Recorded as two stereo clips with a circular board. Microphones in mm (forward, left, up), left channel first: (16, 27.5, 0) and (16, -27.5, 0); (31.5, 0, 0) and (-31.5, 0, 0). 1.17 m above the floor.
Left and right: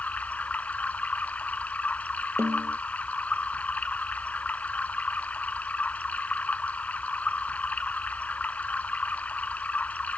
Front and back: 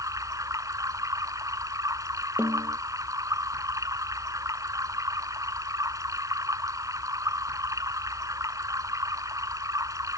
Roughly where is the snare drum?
Behind right.